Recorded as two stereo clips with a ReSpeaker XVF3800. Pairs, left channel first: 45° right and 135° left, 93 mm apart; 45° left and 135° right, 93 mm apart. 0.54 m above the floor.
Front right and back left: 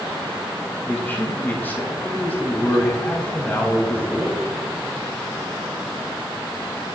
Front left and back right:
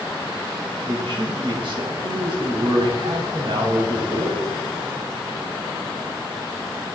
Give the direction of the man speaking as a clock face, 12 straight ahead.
4 o'clock.